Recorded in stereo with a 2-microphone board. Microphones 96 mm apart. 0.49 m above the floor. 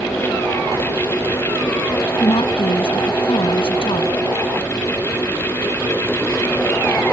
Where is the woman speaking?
75° left (ahead or behind).